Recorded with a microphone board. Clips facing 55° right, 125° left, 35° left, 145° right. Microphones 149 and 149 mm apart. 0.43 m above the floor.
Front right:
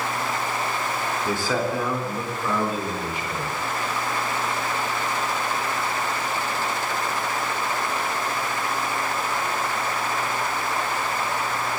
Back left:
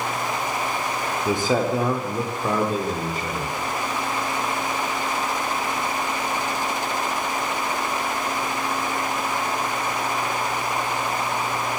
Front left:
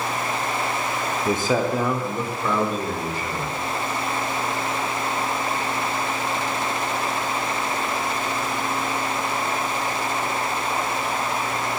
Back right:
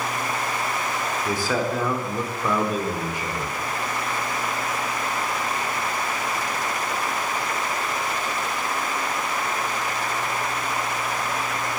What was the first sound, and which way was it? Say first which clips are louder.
A man speaking: back left 4 dB, front left 4 dB; 70° left.